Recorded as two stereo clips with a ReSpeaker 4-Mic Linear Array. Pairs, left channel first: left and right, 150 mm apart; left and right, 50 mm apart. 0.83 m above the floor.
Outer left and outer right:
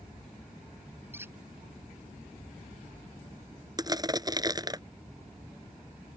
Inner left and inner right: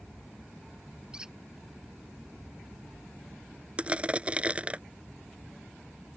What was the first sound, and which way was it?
A squeak, 15° right (ahead or behind).